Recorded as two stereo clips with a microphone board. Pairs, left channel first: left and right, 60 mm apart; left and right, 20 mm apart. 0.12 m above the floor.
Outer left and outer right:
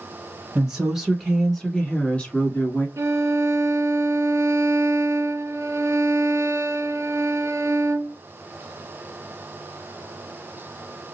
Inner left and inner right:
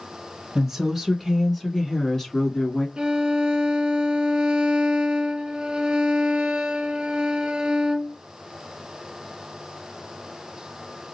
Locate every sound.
0.6 s a woman speaking: 10° right (ahead or behind), 1.2 m; by 2.9 s 35° left (ahead or behind), 1.2 m
3.0 s a violin: 55° right (ahead or behind), 0.6 m